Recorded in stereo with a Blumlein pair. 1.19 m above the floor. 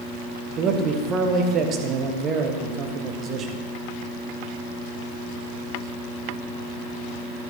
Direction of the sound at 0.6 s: 30° right.